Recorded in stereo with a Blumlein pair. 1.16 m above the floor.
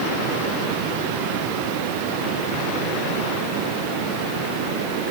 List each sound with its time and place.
Only background noise.